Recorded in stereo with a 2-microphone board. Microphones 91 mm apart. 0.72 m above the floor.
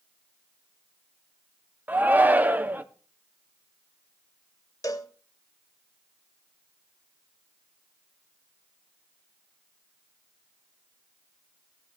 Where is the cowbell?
40° left (ahead or behind), 0.9 m.